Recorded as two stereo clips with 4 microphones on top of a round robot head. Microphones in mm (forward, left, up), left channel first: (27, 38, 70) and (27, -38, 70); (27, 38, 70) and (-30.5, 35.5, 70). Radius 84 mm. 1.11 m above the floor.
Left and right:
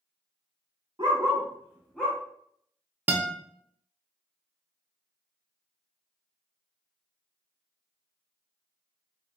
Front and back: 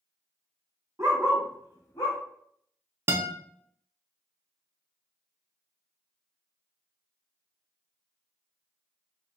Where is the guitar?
150° right, 0.5 m.